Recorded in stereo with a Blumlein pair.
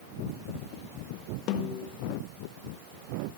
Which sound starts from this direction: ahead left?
A snare drum, at 1.5 s.